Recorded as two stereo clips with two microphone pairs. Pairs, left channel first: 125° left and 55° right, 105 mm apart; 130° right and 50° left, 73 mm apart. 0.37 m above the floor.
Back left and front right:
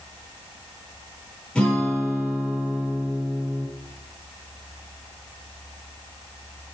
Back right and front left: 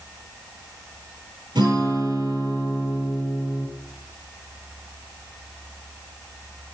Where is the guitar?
45° left, 7 m.